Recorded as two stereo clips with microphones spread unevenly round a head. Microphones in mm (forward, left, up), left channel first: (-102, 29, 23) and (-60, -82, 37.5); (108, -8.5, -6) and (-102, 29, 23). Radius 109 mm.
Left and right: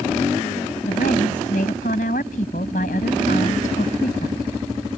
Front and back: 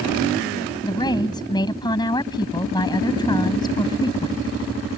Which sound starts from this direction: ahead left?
A woman speaking, at 0.8 s.